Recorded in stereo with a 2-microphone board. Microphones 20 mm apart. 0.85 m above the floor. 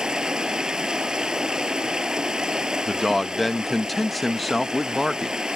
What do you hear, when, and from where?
0.0 s running water: 40° right (ahead or behind)
2.9 s a man speaking: 5° left (ahead or behind)